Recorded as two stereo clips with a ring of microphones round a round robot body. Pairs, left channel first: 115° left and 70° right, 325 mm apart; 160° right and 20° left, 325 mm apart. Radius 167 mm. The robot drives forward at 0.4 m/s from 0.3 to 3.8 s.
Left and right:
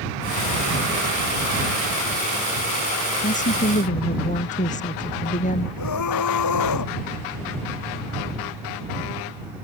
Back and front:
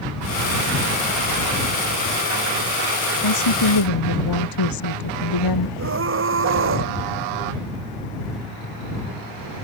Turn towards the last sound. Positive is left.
turn(degrees=75)